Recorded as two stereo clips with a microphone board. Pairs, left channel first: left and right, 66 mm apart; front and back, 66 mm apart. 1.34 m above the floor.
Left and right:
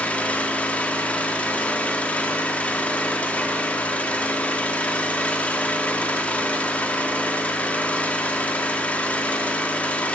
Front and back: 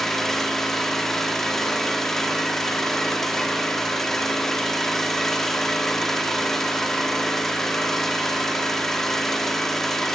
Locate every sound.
0.0 s an engine running: 70° left, 0.9 m